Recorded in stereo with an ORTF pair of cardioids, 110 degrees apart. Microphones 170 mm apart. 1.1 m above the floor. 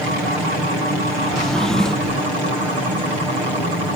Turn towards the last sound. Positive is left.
turn(degrees=5)